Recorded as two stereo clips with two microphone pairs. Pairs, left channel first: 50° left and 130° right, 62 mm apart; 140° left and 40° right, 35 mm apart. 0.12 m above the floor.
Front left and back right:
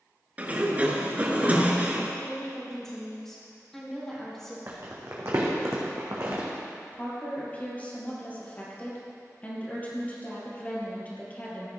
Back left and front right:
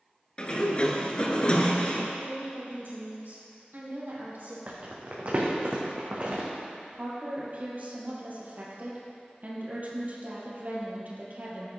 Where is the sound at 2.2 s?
30° right, 4 m.